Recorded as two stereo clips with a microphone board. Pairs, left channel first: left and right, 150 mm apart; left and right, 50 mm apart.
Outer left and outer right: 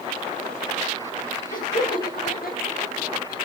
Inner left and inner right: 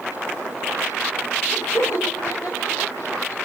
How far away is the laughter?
About 1.8 m.